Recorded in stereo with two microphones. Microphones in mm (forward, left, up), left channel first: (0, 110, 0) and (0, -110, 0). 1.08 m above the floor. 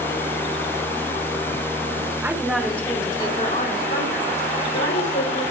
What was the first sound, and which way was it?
A woman speaking, 10° right (ahead or behind).